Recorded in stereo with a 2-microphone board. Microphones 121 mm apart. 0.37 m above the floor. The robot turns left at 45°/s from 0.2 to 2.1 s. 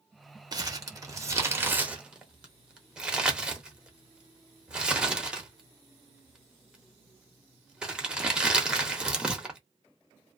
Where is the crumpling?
35° right (ahead or behind), 0.7 m; by 9.6 s 5° right (ahead or behind), 0.7 m.